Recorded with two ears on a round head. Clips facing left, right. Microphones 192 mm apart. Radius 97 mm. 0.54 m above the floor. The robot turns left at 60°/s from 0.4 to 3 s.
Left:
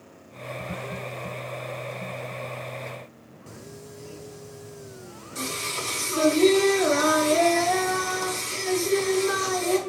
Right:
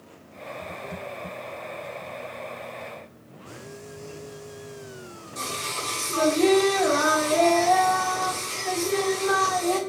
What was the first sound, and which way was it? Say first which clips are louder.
Singing: right 2 dB; 35° left (ahead or behind).